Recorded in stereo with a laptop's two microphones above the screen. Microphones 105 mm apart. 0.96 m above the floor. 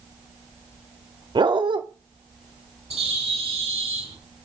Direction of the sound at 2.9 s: 75° right (ahead or behind).